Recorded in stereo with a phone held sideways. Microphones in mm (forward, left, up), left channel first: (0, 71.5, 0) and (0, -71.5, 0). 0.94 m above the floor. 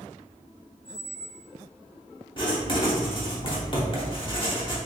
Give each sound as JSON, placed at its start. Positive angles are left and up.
{"t": 0.8, "sound": "a squeak", "side_deg": 35, "distance_m": 1.2}
{"t": 2.4, "sound": "writing", "side_deg": 35, "distance_m": 1.0}